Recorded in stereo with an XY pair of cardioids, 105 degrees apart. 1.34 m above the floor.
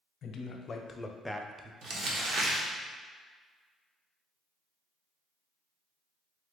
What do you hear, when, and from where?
0.2 s a man speaking: 55° left, 0.8 m; by 1.7 s 25° right, 0.5 m
1.8 s crumpling: 70° right, 1.0 m